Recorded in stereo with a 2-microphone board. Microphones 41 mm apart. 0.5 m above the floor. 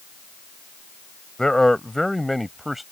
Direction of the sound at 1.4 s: 15° left (ahead or behind).